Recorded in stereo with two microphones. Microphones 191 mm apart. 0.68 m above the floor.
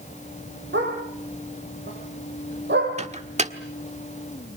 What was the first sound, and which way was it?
A dog barking, 75° right (ahead or behind).